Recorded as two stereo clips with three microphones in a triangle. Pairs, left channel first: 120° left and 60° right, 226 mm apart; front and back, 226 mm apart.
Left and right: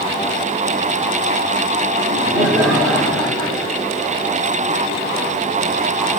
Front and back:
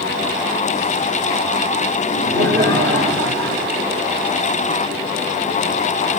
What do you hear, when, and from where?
2.0 s laughter: 155° right, 6.5 m; by 3.9 s 150° right, 7 m